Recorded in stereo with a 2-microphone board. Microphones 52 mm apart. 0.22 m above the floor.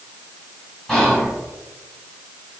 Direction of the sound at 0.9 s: 5° left (ahead or behind).